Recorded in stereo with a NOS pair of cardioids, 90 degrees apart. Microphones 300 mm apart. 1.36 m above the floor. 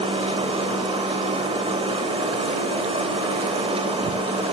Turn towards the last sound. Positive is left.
turn(degrees=-20)